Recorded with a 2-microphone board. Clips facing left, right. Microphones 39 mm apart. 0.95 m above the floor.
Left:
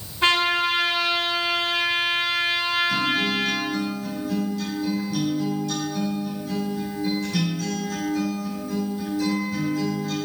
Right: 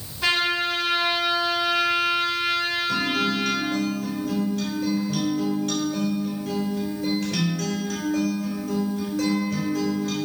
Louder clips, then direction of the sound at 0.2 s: Left 3 dB; 35° left (ahead or behind).